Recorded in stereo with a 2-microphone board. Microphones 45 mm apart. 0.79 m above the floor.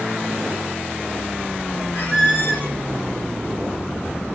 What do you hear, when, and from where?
1.9 s a squeak: 65° left (ahead or behind), 1.8 m